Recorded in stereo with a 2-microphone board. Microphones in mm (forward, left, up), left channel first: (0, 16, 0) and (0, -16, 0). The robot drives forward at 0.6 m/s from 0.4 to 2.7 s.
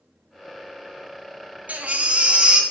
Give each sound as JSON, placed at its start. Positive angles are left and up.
{"t": 1.7, "sound": "a baby crying", "side_deg": -60, "distance_m": 0.5}